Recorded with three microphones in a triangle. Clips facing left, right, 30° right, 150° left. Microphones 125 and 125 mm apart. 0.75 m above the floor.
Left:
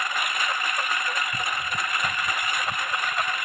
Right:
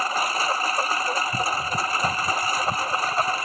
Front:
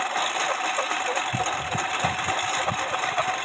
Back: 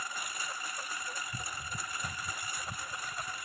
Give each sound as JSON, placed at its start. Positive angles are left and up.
{"t": 0.0, "sound": "a lawn mower", "azimuth_deg": -35}